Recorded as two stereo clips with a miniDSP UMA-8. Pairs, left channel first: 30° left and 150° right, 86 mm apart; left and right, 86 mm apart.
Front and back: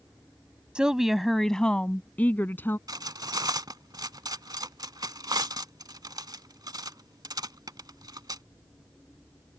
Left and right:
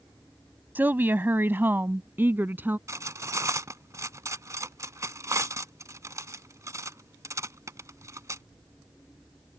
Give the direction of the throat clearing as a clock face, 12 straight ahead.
I don't hear throat clearing.